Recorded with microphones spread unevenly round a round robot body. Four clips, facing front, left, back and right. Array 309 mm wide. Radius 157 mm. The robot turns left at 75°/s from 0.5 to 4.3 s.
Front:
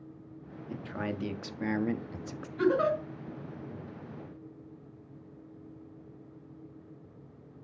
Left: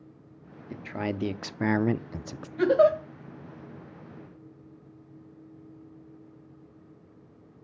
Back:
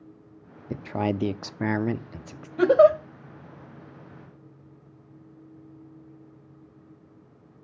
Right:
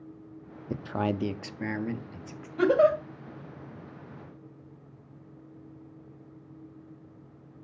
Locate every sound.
0.7 s a man speaking: 145° right, 0.8 m; by 2.5 s 80° left, 0.8 m
2.6 s a giggle: 165° right, 2.5 m; by 3.0 s 165° left, 2.5 m